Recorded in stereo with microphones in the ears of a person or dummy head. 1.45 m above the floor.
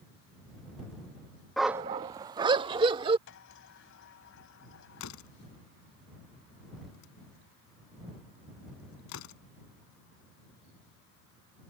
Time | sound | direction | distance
1.6 | a dog barking | centre (ahead or behind) | ?
3.3 | a sliding door | 70° left (ahead or behind) | ?
5.0 | a door slam | 80° left | ?